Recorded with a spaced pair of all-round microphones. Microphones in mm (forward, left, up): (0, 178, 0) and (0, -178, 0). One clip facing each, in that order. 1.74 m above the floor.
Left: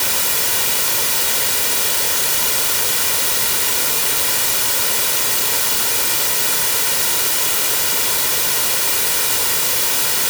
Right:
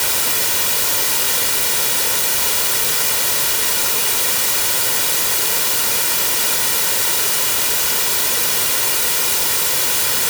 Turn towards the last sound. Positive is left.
No sound to turn to.